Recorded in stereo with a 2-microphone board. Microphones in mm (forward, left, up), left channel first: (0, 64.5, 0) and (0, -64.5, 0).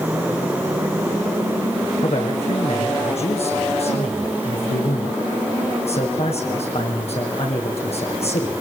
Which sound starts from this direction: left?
A man speaking, at 2.0 s.